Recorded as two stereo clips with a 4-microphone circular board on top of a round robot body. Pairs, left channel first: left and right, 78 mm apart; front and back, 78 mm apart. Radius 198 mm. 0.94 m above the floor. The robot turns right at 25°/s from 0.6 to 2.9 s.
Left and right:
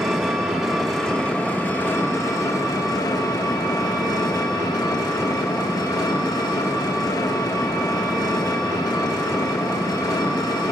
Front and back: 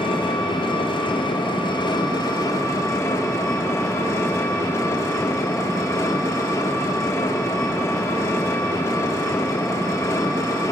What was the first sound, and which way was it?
An engine running, 5° right.